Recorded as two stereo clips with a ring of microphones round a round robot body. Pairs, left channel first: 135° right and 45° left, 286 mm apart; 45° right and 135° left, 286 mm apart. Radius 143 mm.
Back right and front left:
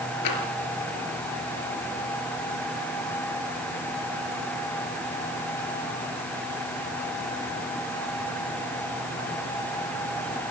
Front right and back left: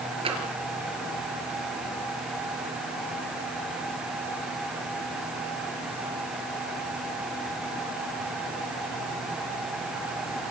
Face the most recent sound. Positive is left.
turn(degrees=-155)